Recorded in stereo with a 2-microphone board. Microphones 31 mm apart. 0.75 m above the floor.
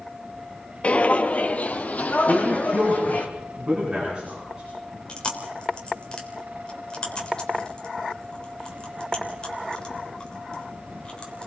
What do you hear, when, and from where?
0.8 s footsteps: 40° left (ahead or behind), 0.9 m; by 3.3 s 50° left (ahead or behind), 2.5 m
2.3 s a man speaking: 30° right (ahead or behind), 9 m
5.1 s chewing: 30° left (ahead or behind), 3.5 m